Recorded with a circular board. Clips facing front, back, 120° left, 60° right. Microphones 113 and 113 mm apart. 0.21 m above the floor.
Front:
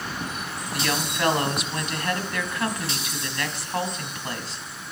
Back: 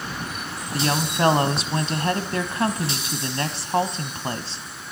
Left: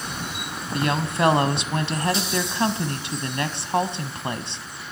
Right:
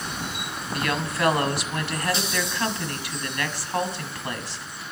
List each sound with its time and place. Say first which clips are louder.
0.7 s a woman speaking: back 4 dB, left 3 dB; 160° left, 1.1 m